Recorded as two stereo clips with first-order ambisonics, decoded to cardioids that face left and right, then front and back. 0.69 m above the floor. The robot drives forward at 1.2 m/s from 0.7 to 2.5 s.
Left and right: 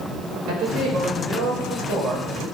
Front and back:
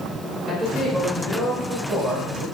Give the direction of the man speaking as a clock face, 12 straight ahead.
3 o'clock.